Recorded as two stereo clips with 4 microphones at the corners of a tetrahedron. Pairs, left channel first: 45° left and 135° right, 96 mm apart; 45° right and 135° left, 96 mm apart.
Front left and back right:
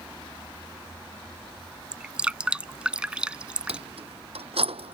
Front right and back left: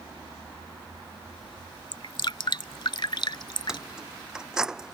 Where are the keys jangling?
140° right.